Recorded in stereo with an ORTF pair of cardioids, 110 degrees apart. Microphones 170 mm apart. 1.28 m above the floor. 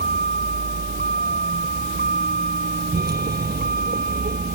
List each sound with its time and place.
0.0 s a vehicle: 70° right; by 4.5 s 65° right